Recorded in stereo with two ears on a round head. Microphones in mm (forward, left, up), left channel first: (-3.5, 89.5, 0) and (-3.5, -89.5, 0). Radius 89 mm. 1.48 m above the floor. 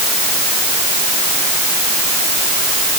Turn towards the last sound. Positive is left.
No sound to turn to.